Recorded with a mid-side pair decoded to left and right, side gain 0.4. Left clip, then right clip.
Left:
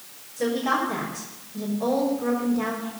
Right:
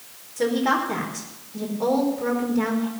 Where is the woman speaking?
60° right, 4.5 m.